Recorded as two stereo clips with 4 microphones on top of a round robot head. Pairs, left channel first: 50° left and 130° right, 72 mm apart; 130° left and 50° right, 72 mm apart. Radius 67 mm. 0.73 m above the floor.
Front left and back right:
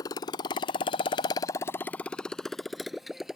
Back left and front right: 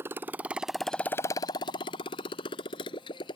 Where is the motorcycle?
10° left; by 3.4 s 145° left.